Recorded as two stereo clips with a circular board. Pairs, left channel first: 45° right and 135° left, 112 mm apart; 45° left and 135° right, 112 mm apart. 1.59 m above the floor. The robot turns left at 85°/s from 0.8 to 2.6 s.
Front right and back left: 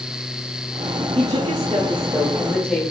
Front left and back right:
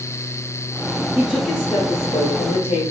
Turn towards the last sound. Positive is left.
turn(degrees=30)